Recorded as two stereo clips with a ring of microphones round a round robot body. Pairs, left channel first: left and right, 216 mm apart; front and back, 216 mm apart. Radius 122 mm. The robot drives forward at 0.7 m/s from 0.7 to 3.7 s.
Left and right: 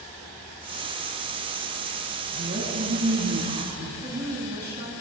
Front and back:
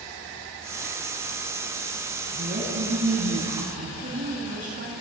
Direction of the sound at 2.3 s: 130° right.